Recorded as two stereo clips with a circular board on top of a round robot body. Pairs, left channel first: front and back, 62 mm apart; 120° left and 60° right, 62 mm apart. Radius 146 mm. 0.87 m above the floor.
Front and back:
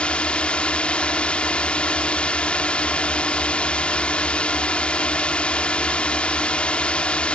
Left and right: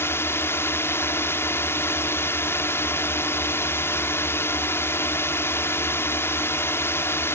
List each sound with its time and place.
0.0 s a drone: 70° left